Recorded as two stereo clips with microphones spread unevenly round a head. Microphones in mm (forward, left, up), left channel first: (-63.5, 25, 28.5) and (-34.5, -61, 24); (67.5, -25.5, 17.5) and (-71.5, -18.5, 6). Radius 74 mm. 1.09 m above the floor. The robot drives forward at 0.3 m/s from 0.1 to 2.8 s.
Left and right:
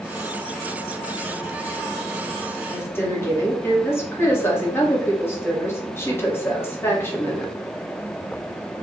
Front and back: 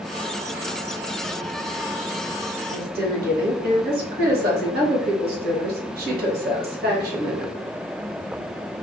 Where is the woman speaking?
175° left, 1.4 m.